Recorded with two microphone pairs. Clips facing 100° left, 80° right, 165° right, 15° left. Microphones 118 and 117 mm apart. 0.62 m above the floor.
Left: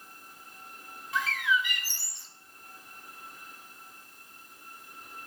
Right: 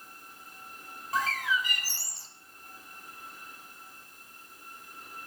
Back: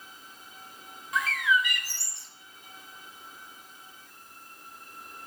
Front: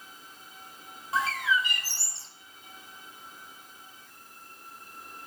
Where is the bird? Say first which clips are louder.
Left 1 dB, back 1 dB; 40° right, 1.2 m.